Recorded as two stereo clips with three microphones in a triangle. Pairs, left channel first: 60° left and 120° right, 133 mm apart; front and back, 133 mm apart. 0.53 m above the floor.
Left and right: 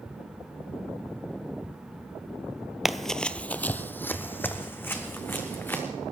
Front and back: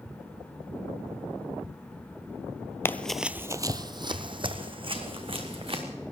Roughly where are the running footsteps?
Ahead right.